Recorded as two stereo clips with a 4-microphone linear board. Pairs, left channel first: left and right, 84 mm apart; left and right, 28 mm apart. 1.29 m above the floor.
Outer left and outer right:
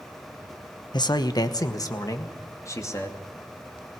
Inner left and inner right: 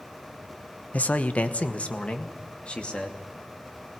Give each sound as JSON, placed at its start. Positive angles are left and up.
{"t": 0.9, "sound": "a man speaking", "side_deg": 65, "distance_m": 1.1}